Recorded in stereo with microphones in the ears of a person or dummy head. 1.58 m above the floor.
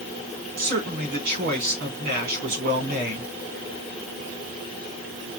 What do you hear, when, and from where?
0.6 s a man speaking: 45° right (ahead or behind), 1.8 m